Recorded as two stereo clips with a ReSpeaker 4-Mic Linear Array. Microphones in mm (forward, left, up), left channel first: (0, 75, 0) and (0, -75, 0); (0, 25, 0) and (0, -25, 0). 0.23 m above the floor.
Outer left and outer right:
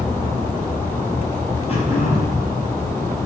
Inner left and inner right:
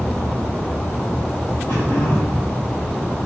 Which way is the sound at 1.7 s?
45° left (ahead or behind).